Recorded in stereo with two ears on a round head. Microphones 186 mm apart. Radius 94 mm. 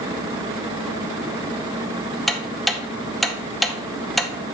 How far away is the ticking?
About 0.6 m.